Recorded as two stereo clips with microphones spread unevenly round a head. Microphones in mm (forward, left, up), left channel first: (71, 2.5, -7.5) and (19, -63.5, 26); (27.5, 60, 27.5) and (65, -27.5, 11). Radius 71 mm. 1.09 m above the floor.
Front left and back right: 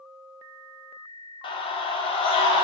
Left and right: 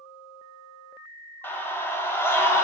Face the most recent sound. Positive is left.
turn(degrees=50)